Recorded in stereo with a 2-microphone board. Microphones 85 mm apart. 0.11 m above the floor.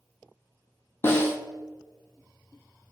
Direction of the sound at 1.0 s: 30° left (ahead or behind).